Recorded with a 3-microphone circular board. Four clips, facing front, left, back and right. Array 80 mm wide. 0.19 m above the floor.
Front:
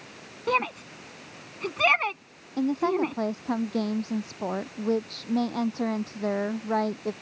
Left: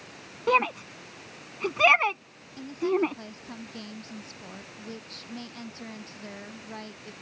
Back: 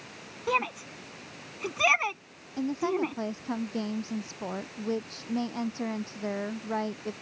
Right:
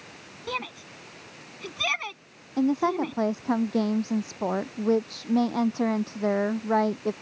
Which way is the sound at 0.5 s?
75° left.